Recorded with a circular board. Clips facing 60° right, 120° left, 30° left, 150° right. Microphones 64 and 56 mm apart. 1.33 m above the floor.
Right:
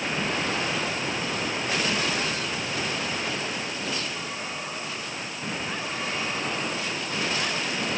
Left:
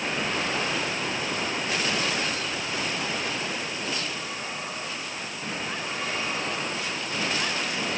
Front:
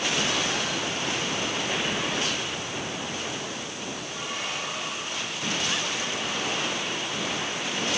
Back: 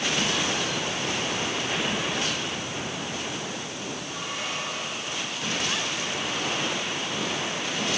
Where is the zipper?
I don't hear a zipper.